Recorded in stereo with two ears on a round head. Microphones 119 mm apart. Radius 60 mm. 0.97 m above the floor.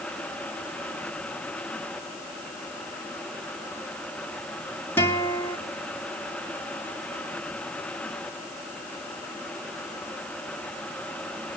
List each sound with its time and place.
5.0 s a guitar: 15° left (ahead or behind), 1.8 m